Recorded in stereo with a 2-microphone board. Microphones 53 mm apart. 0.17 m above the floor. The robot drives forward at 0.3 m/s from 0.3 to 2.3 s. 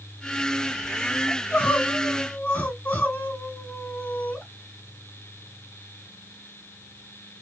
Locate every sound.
1.3 s crying: 25° left (ahead or behind), 1.4 m; by 4.4 s 30° left (ahead or behind), 1.3 m